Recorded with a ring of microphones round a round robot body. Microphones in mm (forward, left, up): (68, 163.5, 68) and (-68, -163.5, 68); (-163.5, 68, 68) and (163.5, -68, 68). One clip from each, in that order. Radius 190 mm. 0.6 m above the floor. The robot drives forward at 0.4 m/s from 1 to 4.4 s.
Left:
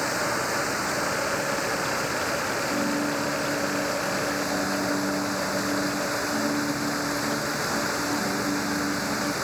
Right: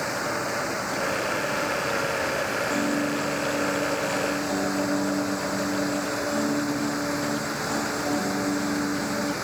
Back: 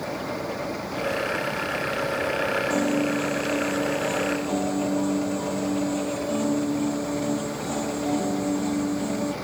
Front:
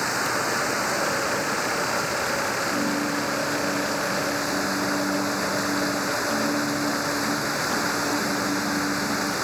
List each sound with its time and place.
0.0 s running water: 10° right
2.7 s a piano: 175° left